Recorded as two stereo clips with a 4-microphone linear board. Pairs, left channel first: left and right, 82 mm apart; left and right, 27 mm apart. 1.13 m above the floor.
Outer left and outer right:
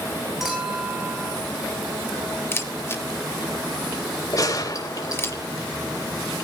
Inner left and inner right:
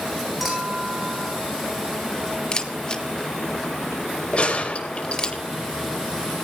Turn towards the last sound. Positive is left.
turn(degrees=45)  # may be behind; listen again after turning